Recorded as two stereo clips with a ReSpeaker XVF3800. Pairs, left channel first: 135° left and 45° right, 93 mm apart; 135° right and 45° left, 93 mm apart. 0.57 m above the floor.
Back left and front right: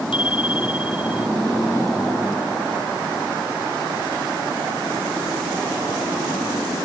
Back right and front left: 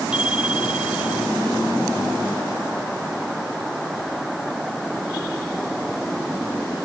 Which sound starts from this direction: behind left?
A bicycle bell, at 0.1 s.